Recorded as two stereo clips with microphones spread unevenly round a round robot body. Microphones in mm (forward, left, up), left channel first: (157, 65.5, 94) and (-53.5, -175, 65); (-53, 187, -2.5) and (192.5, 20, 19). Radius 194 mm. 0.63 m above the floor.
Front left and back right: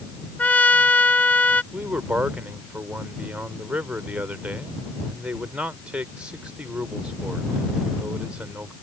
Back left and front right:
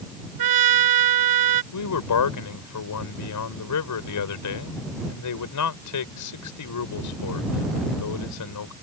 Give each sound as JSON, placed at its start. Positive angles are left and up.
{"t": 0.4, "sound": "a trumpet", "azimuth_deg": -35}
{"t": 1.7, "sound": "a man speaking", "azimuth_deg": 145}